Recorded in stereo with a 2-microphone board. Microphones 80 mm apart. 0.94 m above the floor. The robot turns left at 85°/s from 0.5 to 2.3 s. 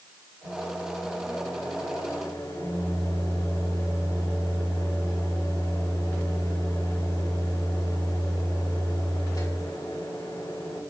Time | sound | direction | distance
0.4 | a microwave | 150° right | 3.5 m